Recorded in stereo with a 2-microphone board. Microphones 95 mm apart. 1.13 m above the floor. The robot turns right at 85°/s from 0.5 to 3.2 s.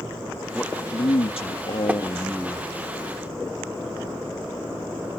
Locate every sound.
0.5 s a man speaking: 10° left; by 2.7 s 170° right
1.9 s tapping: 15° right (ahead or behind); by 2.0 s 5° right (ahead or behind)